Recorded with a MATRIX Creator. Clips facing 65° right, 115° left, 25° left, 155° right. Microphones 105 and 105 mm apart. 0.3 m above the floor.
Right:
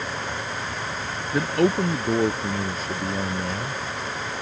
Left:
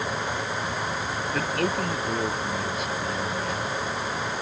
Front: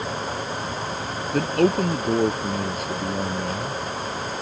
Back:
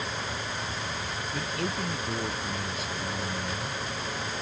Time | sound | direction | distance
1.3 | a man speaking | 5° right | ?